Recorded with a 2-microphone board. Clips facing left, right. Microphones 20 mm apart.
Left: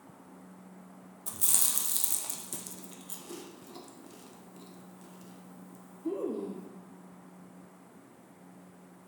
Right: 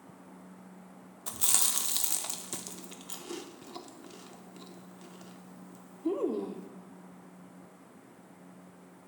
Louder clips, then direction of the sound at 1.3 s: Right 2 dB; 30° right (ahead or behind).